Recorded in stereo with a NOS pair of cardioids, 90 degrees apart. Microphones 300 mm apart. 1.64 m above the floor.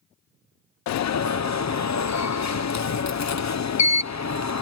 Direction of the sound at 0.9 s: 70° left.